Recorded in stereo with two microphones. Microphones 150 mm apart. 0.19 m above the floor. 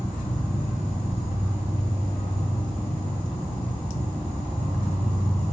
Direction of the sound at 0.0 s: 40° left (ahead or behind).